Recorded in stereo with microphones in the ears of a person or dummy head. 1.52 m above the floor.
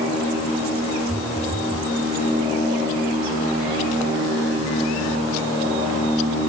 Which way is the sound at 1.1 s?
Centre (ahead or behind).